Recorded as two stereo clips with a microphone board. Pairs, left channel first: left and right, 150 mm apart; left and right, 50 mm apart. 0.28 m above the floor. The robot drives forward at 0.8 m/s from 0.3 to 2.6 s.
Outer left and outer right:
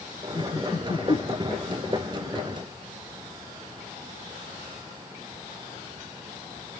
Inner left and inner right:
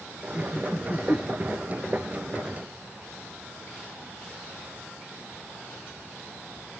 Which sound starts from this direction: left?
Laughter, at 0.3 s.